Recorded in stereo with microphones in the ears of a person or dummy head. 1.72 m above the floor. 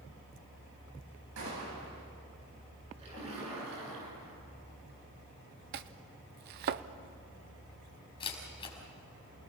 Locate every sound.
1.4 s a gunshot: 85° right, 9.5 m
3.0 s a splash: 35° right (ahead or behind), 9.5 m
5.7 s chopping: 55° right (ahead or behind), 0.8 m
8.2 s a camera shutter: 25° left (ahead or behind), 5 m